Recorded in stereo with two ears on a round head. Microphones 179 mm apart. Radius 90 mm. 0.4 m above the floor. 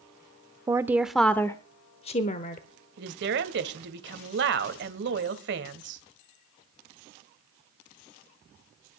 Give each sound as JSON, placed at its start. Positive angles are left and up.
{"t": 0.7, "sound": "a woman speaking", "side_deg": -15, "distance_m": 0.8}
{"t": 3.0, "sound": "a woman speaking", "side_deg": -60, "distance_m": 1.6}